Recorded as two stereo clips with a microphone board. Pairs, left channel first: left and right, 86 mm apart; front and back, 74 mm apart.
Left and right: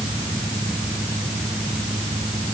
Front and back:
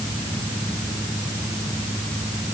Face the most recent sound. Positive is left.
No sound to turn to.